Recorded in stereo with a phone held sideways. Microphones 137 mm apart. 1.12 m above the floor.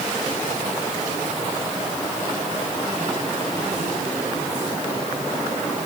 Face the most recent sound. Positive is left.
No sound to turn to.